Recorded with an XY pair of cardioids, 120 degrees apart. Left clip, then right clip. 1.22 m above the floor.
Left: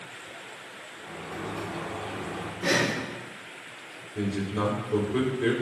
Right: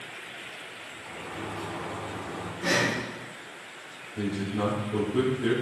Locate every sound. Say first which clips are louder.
1.0 s a sliding door: left 1 dB; 30° left, 1.2 m
2.6 s breathing: even; 15° left, 0.9 m
4.2 s a man speaking: left 1 dB; 60° left, 3 m